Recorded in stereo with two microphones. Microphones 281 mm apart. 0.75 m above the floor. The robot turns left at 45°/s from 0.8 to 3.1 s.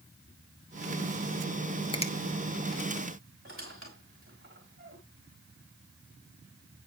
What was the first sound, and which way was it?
A finger snap, 15° left (ahead or behind).